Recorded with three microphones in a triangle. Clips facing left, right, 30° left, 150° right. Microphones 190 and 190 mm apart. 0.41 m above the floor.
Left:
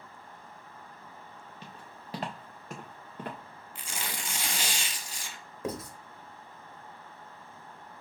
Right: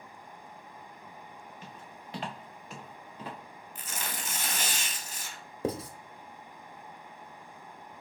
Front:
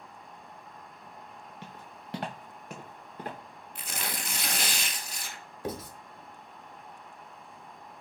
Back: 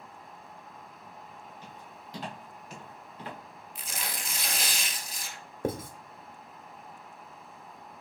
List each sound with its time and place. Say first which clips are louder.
1.6 s footsteps: right 1 dB, front 1 dB; 30° left, 1.9 m; by 3.4 s 70° left, 2 m
3.8 s tearing paper: even, front 2 dB; 15° left, 1.0 m
5.6 s writing: right 3 dB, back 4 dB; 140° right, 0.8 m